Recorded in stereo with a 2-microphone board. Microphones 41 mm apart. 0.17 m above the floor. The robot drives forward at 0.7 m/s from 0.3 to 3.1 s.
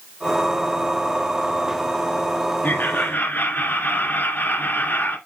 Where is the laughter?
50° left (ahead or behind), 2.5 m; by 5.2 s 55° left (ahead or behind), 2.5 m.